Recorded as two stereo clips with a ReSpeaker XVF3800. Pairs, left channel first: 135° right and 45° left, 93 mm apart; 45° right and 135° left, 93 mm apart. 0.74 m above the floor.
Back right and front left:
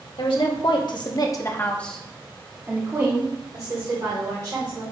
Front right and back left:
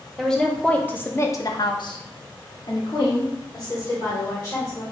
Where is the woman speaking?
130° right, 1.3 m; by 4.8 s 5° left, 2.5 m.